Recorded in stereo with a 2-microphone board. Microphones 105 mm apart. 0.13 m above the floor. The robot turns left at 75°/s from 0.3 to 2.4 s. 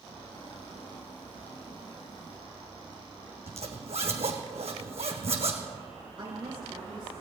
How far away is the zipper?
About 2.5 m.